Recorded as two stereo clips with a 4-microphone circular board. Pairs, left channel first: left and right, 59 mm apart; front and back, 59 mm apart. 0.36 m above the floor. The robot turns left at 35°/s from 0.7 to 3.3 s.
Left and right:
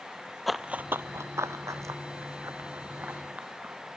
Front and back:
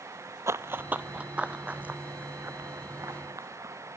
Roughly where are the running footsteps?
Behind.